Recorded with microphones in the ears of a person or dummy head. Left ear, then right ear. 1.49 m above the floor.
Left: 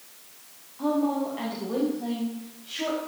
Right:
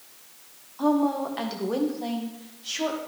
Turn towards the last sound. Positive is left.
turn(degrees=-75)  # may be behind; listen again after turning